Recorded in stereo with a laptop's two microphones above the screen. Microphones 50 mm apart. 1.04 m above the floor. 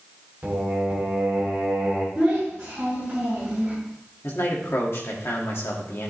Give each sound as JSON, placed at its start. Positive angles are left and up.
{"t": 0.4, "sound": "singing", "side_deg": -25, "distance_m": 2.0}
{"t": 2.1, "sound": "a child speaking", "side_deg": -15, "distance_m": 4.5}
{"t": 4.2, "sound": "a man speaking", "side_deg": 60, "distance_m": 2.0}